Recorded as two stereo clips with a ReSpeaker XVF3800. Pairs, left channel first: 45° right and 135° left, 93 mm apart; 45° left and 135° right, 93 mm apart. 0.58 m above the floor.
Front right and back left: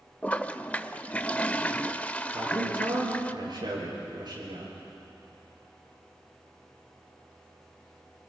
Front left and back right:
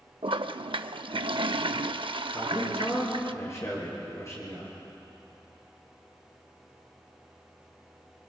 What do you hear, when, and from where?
0.2 s a toilet flushing: 120° right, 0.5 m
2.3 s a man speaking: 100° left, 9 m